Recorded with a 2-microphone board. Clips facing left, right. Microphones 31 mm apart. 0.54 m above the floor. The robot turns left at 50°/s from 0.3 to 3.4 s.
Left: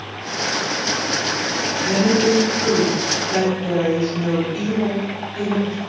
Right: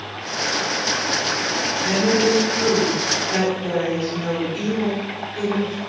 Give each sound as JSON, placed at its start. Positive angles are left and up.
{"t": 1.8, "sound": "a woman speaking", "azimuth_deg": -60, "distance_m": 1.5}